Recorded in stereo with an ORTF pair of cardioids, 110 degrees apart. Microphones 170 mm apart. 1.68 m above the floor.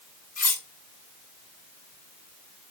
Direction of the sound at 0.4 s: 55° left.